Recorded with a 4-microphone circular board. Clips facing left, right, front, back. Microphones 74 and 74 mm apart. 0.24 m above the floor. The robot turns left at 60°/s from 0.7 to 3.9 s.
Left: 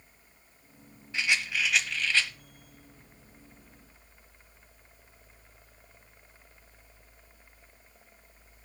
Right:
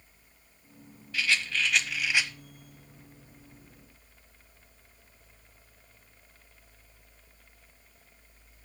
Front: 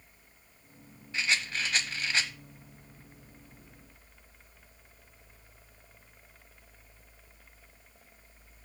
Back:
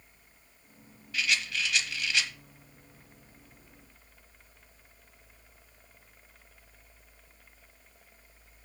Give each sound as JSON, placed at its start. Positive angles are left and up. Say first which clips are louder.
{"t": 1.1, "sound": "a rattle", "louder": "even, even", "azimuth_deg": 40, "distance_m": 0.9}